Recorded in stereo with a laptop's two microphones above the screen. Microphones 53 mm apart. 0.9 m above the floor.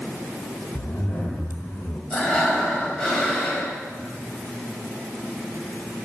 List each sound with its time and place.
0.8 s a zipper: 65° left (ahead or behind), 1.8 m
2.1 s breathing: 20° left (ahead or behind), 2 m